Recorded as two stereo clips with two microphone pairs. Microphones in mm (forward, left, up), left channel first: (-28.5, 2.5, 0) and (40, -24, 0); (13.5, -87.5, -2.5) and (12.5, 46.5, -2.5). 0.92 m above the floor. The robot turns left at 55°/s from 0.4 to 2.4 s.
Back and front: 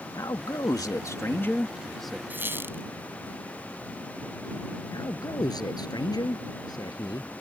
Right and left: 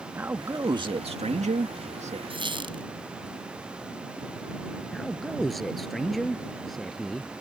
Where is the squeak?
45° left; by 2.8 s 40° left.